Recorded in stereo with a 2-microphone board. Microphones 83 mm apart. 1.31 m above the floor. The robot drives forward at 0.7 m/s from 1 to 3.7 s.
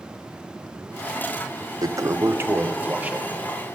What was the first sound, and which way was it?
A toilet flushing, 50° right (ahead or behind).